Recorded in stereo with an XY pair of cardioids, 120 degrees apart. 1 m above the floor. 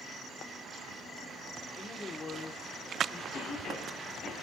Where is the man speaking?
25° left, 4 m.